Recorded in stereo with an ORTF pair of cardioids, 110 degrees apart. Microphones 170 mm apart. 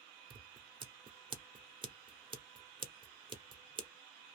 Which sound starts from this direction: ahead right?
Scissors, at 0.3 s.